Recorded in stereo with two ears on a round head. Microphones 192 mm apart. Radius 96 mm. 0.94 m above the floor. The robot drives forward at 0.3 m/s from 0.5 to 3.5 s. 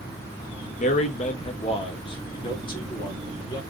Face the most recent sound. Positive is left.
turn(degrees=20)  # may be behind; listen again after turning